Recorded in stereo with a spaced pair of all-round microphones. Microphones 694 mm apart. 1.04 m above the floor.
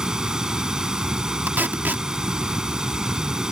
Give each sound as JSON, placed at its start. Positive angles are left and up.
{"t": 0.0, "sound": "running water", "side_deg": 0}
{"t": 1.5, "sound": "tape being pulled", "side_deg": -5}